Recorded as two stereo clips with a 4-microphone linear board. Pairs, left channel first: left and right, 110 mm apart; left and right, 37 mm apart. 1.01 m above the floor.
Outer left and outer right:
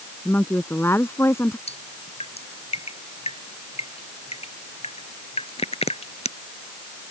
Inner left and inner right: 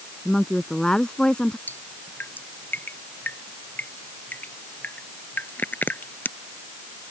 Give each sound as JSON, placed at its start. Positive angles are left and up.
{"t": 0.2, "sound": "a woman speaking", "side_deg": 15}
{"t": 1.7, "sound": "dripping", "side_deg": 65}